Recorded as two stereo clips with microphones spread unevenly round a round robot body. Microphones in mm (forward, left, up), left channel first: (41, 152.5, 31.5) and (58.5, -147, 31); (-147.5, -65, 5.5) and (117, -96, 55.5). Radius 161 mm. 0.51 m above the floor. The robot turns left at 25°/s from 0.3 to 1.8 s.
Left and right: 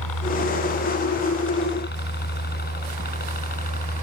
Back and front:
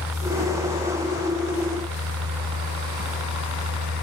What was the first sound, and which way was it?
A helicopter, 80° left.